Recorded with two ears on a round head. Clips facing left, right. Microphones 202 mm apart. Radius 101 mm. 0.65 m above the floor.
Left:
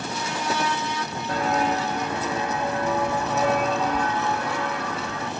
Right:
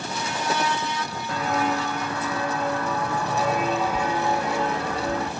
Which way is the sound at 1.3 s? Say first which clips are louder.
Left 1 dB; 30° left (ahead or behind).